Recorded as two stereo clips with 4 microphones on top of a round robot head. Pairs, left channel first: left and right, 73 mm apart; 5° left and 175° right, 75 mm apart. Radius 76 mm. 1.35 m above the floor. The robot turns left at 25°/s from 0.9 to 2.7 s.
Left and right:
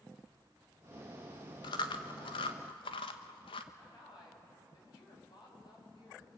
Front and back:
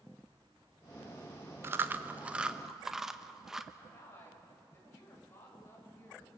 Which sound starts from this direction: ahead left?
A woman speaking, at 3.8 s.